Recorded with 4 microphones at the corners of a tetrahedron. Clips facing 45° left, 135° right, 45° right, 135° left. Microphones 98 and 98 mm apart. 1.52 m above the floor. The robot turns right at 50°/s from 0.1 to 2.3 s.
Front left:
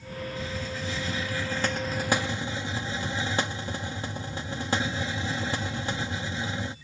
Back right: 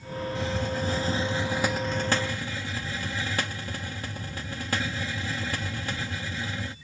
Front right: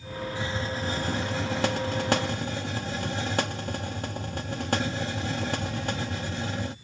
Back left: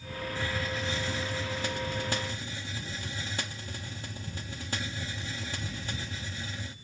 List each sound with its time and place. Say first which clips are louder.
0.3 s a hiss: back right 7 dB, front right 2 dB; 120° right; by 6.8 s 20° right